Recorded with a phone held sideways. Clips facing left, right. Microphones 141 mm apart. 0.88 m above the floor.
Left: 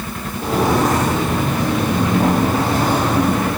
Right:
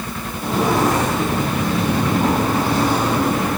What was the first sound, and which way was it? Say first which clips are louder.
Footsteps: left 1 dB; 35° left (ahead or behind).